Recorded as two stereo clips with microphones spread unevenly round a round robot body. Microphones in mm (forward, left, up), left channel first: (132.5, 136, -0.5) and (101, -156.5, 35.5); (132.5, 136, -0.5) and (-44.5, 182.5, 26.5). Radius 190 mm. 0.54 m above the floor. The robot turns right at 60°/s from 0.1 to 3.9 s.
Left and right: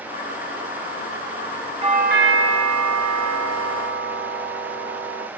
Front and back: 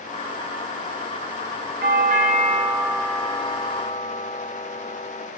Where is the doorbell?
170° right, 1.8 m; by 5.3 s 45° right, 1.8 m.